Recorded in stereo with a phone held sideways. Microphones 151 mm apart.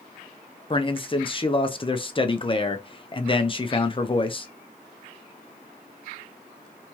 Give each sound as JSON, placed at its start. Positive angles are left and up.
{"t": 0.7, "sound": "a man speaking", "side_deg": 35, "distance_m": 0.5}